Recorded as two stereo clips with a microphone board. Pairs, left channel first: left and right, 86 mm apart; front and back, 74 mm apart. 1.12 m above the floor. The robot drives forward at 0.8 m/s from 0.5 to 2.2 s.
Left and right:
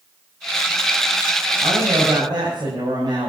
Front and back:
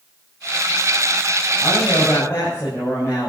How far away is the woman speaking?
About 7.5 m.